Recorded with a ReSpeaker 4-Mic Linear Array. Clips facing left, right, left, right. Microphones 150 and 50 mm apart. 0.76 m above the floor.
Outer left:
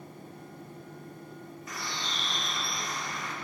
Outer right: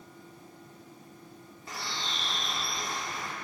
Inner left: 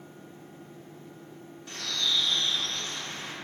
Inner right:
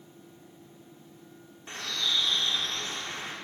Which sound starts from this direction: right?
A bird, at 1.7 s.